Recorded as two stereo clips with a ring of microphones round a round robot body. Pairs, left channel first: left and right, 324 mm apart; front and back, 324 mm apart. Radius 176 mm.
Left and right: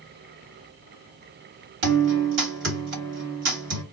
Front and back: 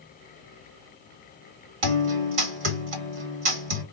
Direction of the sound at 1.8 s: 150° right.